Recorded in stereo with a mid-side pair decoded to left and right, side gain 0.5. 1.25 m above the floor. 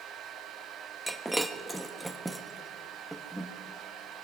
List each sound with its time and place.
0.0 s a fan: 60° right, 1.4 m
1.1 s breaking glass: 10° right, 1.0 m